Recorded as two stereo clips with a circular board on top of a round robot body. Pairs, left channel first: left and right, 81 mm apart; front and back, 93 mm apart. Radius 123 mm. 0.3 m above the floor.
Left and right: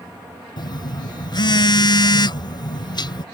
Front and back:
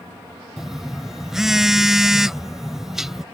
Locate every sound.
0.6 s a phone buzzing: 95° left